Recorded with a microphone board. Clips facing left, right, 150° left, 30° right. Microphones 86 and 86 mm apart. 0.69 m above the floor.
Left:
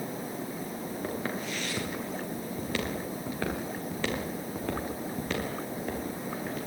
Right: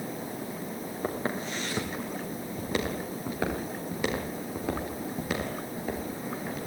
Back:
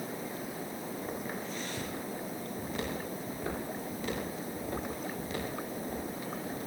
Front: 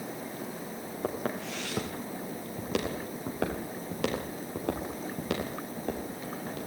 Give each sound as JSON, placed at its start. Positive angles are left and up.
{"t": 1.0, "sound": "footsteps", "azimuth_deg": -30, "distance_m": 7.0}